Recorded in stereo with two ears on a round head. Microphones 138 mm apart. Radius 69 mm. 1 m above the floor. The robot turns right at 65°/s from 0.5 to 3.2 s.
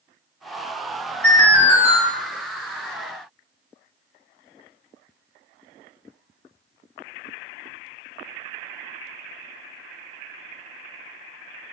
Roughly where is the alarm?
Left.